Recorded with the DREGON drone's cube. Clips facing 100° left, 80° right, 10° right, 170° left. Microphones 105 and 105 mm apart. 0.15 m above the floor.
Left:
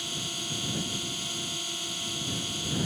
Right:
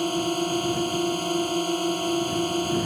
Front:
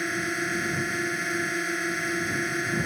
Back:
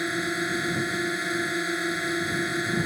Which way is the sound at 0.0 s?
110° right.